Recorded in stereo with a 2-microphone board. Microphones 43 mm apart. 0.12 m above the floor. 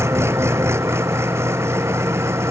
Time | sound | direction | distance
0.0 | an engine running | 80° right | ?